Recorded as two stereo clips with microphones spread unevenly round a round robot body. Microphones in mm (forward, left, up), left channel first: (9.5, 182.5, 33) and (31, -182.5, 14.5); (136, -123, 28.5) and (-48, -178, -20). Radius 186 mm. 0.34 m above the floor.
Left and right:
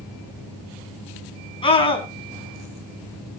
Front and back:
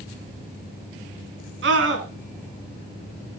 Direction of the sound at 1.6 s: 170° left.